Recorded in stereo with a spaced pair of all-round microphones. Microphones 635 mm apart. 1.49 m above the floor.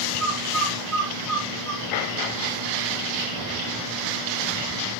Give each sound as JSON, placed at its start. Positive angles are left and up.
{"t": 0.2, "sound": "a bird", "side_deg": -60, "distance_m": 0.9}